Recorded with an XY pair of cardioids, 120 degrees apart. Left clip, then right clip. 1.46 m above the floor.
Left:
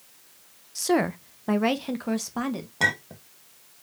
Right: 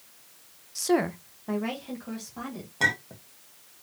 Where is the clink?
20° left, 1.4 m.